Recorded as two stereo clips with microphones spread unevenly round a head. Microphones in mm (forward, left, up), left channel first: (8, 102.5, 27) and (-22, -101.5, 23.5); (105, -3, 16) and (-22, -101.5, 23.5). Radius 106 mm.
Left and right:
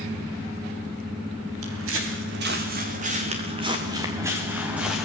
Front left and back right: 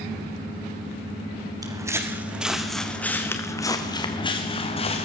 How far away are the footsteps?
About 3.5 m.